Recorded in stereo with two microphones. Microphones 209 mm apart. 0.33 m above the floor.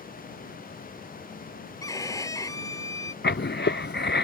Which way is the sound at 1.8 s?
15° left (ahead or behind).